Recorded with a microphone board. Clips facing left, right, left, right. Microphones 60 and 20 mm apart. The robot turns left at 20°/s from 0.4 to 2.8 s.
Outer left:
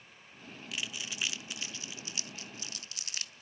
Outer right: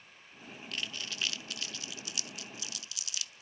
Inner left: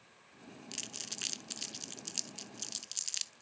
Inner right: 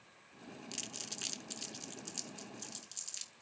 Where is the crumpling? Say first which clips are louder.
Even, inner left 2 dB; 5° left (ahead or behind), 0.6 m; by 3.4 s 45° left (ahead or behind), 0.6 m.